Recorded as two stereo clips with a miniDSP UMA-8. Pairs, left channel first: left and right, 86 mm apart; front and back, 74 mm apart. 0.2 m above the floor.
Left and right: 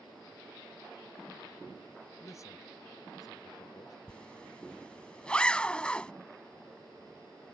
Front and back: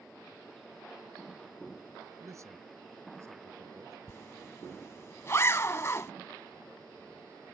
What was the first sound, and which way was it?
A man speaking, 140° left.